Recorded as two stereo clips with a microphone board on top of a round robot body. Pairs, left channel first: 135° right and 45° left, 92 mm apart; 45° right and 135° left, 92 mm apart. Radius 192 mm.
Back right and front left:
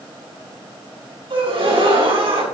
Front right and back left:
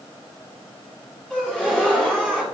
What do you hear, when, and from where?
1.3 s a gasp: 35° left, 6.5 m